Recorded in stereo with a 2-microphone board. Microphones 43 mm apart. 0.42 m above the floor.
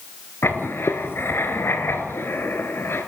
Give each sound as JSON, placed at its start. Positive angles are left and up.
{"t": 0.4, "sound": "writing", "side_deg": 65, "distance_m": 2.5}